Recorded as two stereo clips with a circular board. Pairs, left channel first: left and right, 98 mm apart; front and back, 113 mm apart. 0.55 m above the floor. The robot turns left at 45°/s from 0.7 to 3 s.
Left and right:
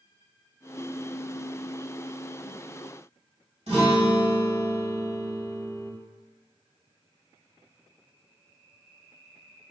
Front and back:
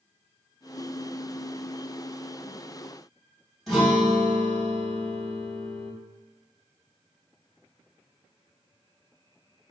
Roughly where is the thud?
I don't hear a thud.